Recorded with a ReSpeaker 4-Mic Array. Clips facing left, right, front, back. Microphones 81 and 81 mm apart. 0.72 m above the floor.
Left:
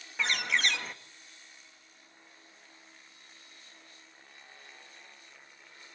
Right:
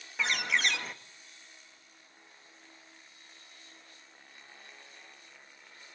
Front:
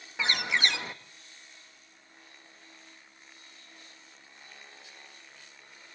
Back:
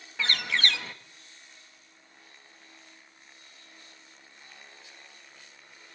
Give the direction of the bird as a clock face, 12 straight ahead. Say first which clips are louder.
Even, even; 12 o'clock.